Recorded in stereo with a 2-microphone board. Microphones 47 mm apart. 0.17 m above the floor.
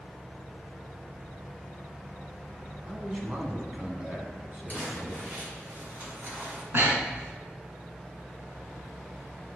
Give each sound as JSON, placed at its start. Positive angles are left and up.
{"t": 2.9, "sound": "a man speaking", "side_deg": -20, "distance_m": 1.1}
{"t": 4.7, "sound": "crumpling", "side_deg": -40, "distance_m": 2.0}
{"t": 6.7, "sound": "breathing", "side_deg": -55, "distance_m": 0.9}